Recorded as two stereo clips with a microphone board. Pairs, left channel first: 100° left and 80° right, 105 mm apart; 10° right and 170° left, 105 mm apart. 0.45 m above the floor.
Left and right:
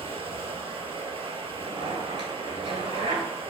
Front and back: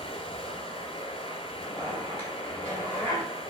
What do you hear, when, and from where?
0.0 s running water: 45° right, 0.9 m
1.6 s a zipper: 80° right, 3 m